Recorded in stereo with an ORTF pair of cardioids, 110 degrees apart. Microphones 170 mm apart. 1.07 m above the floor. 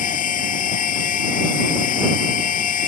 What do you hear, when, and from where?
0.0 s a machine running: 55° left